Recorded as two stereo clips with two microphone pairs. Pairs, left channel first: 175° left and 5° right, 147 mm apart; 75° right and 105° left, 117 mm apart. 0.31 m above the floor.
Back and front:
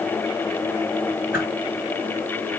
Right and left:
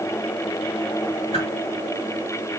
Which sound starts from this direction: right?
A whoosh, at 1.3 s.